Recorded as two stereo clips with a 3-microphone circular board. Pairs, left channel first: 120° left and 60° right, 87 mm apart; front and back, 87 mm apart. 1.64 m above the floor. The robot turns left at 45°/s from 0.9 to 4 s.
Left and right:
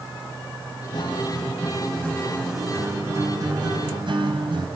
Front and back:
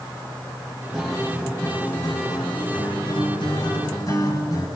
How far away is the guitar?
About 4.5 m.